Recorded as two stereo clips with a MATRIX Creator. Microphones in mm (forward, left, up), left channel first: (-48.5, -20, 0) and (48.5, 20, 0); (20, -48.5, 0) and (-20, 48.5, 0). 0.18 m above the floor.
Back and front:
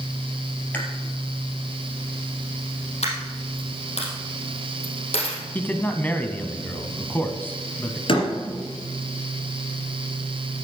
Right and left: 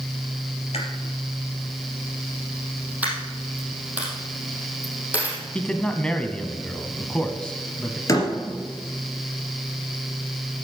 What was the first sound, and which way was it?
Chewing, 85° right.